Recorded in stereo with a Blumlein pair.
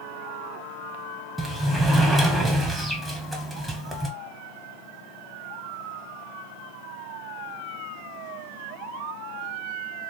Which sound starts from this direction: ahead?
A sliding door, at 1.4 s.